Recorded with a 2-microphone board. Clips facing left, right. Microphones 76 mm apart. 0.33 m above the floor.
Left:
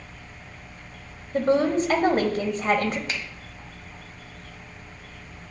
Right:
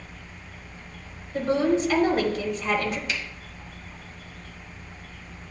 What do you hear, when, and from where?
1.3 s a woman speaking: 45° left (ahead or behind), 1.3 m
3.1 s a finger snap: 35° left (ahead or behind), 1.4 m